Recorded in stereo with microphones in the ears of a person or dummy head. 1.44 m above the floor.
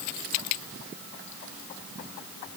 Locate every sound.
Only background noise.